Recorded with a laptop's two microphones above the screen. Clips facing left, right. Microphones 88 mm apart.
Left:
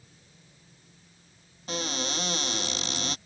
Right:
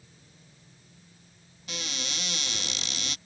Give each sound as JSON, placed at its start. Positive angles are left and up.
{"t": 1.7, "sound": "a cupboard door", "side_deg": 35}